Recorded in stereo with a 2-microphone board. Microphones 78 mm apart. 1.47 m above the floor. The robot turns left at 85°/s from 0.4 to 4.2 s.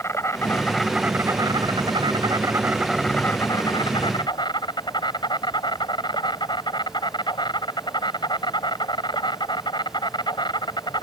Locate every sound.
0.0 s an insect: 40° left; by 11.0 s 75° left